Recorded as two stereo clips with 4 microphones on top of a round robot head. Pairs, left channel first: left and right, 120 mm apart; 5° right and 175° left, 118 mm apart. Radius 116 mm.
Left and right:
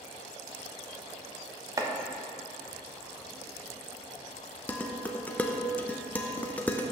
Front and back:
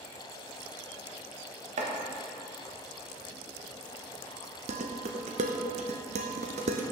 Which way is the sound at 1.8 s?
150° right.